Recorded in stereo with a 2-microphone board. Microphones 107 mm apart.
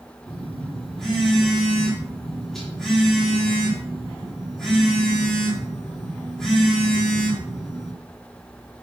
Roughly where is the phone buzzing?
Centre.